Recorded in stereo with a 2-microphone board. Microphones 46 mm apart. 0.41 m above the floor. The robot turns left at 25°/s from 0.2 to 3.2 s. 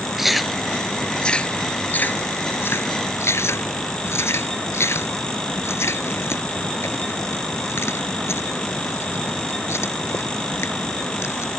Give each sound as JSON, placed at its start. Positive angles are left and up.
{"t": 0.2, "sound": "chewing", "side_deg": -5}